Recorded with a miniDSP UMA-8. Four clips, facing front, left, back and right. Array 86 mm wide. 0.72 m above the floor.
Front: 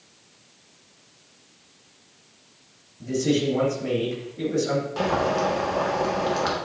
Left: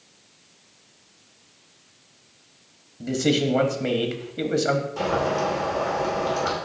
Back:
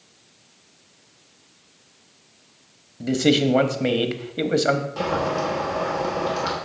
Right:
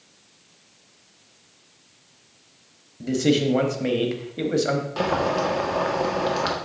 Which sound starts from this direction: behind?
A man speaking, at 3.0 s.